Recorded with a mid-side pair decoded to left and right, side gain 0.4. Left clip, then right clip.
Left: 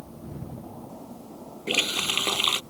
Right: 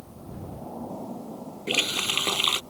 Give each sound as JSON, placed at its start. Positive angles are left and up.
{"t": 1.7, "sound": "a running tap", "azimuth_deg": 0}